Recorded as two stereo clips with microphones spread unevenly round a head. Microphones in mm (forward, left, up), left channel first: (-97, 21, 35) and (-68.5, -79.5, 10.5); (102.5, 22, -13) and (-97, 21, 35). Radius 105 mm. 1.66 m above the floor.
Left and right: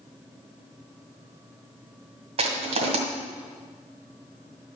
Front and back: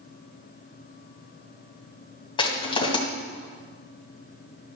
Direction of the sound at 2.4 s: 75° right.